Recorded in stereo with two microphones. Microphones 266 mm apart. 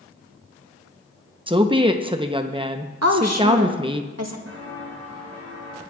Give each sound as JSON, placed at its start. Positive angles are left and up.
{"t": 1.5, "sound": "a woman speaking", "side_deg": -20, "distance_m": 0.7}
{"t": 3.0, "sound": "a woman speaking", "side_deg": -70, "distance_m": 1.4}
{"t": 4.5, "sound": "footsteps", "side_deg": -55, "distance_m": 4.5}